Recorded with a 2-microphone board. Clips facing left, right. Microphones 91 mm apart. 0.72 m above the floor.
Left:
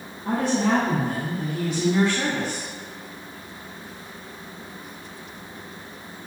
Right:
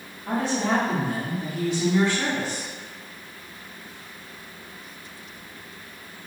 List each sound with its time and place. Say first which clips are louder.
0.2 s a woman speaking: left 3 dB; 60° left (ahead or behind), 1.8 m